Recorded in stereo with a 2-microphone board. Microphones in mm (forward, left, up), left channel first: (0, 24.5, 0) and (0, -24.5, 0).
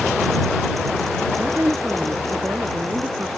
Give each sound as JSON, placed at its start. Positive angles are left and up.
{"t": 1.4, "sound": "a woman speaking", "side_deg": -50}